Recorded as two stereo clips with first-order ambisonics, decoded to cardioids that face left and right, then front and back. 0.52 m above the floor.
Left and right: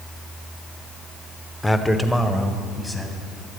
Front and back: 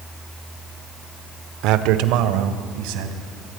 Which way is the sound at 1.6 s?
170° left.